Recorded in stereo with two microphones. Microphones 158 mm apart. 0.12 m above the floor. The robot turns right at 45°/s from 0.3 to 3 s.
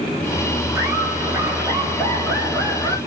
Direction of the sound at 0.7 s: 25° right (ahead or behind).